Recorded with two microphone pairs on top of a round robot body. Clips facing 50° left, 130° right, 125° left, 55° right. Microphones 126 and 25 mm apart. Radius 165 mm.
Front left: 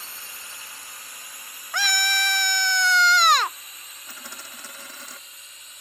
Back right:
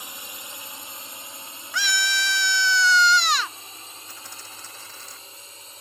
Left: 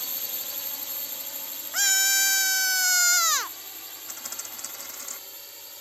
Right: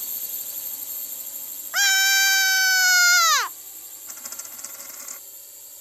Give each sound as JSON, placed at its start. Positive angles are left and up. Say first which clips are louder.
{"t": 0.0, "sound": "a drone", "louder": "back right 3 dB, left 2 dB", "azimuth_deg": 180}
{"t": 1.7, "sound": "a scream", "louder": "even, right 5 dB", "azimuth_deg": 10}
{"t": 4.1, "sound": "a dropped coin", "louder": "front left 6 dB, even", "azimuth_deg": 35}